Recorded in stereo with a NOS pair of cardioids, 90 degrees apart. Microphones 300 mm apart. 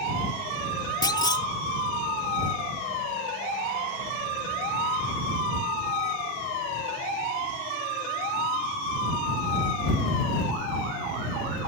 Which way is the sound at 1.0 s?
15° left.